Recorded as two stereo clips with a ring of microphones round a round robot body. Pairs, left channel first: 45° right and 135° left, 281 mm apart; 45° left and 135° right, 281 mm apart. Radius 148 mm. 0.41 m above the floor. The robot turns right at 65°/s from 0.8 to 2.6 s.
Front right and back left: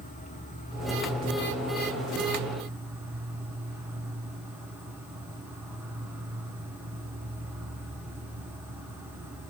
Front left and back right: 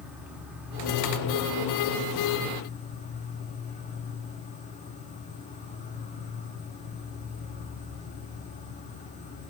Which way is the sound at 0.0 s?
55° right.